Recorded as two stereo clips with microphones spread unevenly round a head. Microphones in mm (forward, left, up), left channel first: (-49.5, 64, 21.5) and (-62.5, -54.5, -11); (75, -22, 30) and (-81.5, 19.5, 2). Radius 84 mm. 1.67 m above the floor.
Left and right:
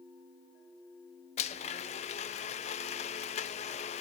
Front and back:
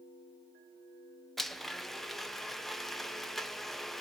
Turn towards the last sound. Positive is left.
turn(degrees=70)